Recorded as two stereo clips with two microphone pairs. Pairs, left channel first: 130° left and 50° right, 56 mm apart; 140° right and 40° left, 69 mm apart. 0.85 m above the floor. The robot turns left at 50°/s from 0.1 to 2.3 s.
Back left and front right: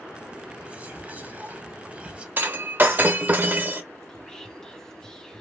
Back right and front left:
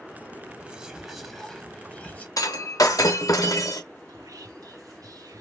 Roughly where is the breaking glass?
Right.